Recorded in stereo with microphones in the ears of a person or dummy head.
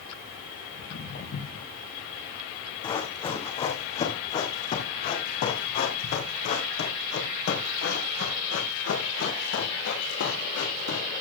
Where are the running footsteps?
15° left (ahead or behind), 4 m; by 11.2 s 75° left (ahead or behind), 5 m.